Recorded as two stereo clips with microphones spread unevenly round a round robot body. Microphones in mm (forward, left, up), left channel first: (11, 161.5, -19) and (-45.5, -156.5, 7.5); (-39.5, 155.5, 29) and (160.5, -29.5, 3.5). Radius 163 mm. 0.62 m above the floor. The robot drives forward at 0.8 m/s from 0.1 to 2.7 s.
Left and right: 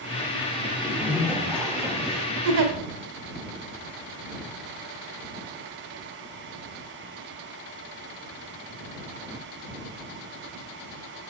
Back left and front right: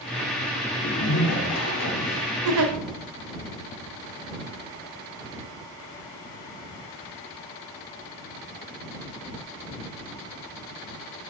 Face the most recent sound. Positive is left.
turn(degrees=-75)